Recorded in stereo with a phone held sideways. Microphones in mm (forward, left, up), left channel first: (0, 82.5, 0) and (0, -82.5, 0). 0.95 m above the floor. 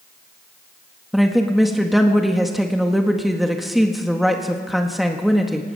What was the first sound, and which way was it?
A woman speaking, centre (ahead or behind).